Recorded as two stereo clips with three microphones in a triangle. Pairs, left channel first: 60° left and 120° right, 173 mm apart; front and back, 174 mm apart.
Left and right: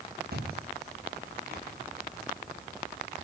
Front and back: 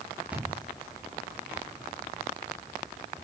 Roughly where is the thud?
Right.